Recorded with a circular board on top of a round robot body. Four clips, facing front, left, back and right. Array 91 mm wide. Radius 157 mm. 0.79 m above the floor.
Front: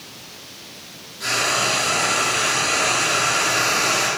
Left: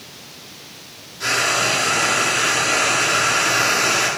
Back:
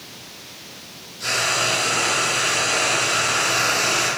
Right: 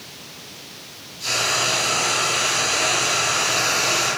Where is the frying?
80° left, 9.5 m.